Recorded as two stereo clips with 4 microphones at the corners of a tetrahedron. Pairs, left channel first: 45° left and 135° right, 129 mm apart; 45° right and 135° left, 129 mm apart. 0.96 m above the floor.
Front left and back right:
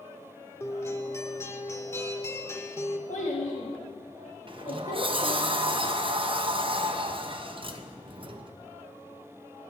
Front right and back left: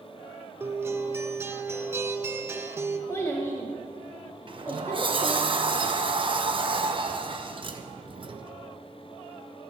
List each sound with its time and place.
0.6 s a guitar: 85° left, 0.6 m
3.1 s a child speaking: 25° left, 1.1 m
4.5 s a sliding door: straight behind, 0.6 m